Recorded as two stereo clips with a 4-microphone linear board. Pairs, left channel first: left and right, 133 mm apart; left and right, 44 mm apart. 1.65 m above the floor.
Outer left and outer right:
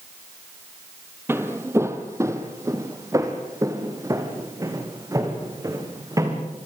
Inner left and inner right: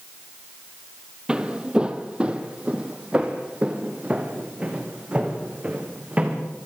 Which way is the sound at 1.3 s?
20° right (ahead or behind).